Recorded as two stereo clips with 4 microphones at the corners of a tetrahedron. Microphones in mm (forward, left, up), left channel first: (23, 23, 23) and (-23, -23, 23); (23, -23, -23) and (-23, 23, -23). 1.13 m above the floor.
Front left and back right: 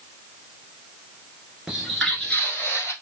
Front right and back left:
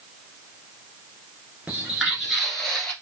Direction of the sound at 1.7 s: 160° left.